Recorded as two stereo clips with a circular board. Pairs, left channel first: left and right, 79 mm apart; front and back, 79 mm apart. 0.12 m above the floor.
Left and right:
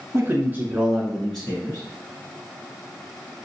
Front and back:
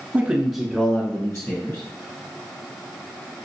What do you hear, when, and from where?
0.1 s a man speaking: 120° right, 1.4 m; by 1.8 s 20° left, 1.8 m